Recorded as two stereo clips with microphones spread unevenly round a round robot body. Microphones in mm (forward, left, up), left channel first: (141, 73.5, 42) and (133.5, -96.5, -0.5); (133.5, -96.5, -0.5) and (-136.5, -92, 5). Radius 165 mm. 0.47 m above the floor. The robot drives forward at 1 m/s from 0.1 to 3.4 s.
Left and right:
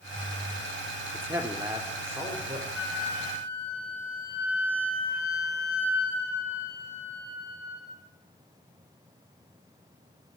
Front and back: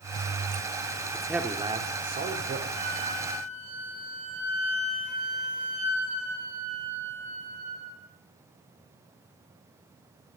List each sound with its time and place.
1.1 s a man speaking: 80° right, 1.5 m; by 2.6 s 155° right, 2 m
2.7 s a flute: 170° right, 5 m